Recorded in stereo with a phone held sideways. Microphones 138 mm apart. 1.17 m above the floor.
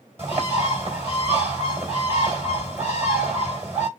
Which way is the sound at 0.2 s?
20° right (ahead or behind).